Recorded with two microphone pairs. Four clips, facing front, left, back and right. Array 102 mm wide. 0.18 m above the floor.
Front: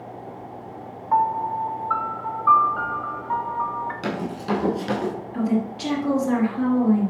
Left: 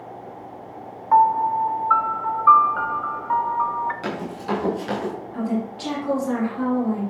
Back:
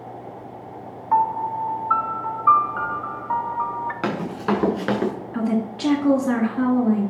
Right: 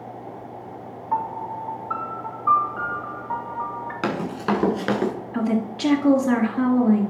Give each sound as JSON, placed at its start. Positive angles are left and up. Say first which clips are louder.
{"t": 1.1, "sound": "a piano", "louder": "left 10 dB, back 1 dB", "azimuth_deg": 115, "distance_m": 1.0}
{"t": 4.0, "sound": "running footsteps", "louder": "right 3 dB, back 5 dB", "azimuth_deg": -140, "distance_m": 6.0}
{"t": 5.3, "sound": "a woman speaking", "louder": "right 2 dB, front 1 dB", "azimuth_deg": -140, "distance_m": 1.9}